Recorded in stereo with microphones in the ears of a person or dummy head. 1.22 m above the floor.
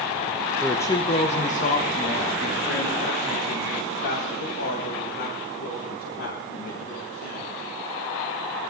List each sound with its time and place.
0.6 s a woman speaking: centre (ahead or behind), 0.8 m; by 7.6 s 55° left (ahead or behind), 8 m